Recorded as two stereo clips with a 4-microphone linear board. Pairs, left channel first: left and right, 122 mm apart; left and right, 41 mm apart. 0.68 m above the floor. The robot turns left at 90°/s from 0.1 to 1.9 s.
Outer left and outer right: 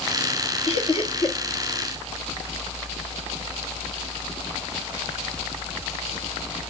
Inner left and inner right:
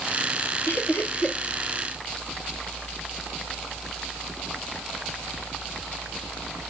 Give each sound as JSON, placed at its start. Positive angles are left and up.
{"t": 0.7, "sound": "laughter", "side_deg": 45, "distance_m": 1.6}